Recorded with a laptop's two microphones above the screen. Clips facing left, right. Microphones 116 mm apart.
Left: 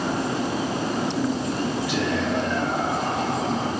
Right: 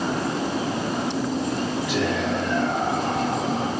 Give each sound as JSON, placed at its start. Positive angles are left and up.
{"t": 1.9, "sound": "whispering", "side_deg": 40, "distance_m": 1.1}